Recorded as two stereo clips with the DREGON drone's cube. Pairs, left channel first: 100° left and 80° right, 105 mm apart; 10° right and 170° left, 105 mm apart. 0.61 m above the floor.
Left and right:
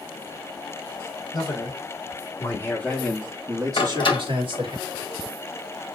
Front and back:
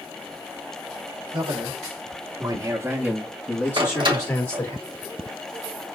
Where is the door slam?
135° left, 1.9 m.